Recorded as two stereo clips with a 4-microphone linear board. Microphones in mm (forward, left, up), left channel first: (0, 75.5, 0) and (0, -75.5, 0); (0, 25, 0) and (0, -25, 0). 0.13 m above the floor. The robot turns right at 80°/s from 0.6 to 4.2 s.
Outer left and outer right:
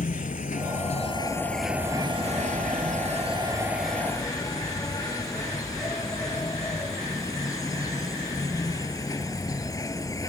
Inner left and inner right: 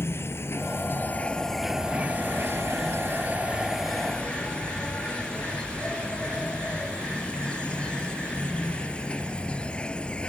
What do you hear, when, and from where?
0.0 s an insect: 100° left; by 10.3 s 25° left